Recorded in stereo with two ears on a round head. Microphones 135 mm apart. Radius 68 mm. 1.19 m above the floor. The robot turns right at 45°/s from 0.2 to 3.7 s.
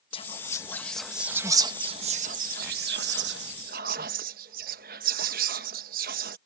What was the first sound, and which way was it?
Whispering, 40° left (ahead or behind).